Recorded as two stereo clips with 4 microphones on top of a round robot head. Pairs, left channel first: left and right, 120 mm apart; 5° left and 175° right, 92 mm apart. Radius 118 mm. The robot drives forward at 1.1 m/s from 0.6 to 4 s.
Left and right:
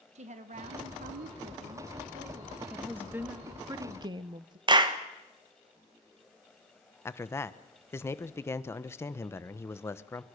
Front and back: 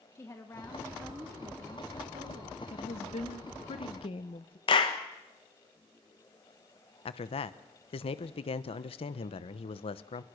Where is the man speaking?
20° left, 1.0 m.